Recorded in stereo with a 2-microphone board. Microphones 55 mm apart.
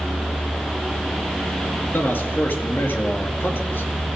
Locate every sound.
1.9 s a man speaking: 45° left (ahead or behind), 2.0 m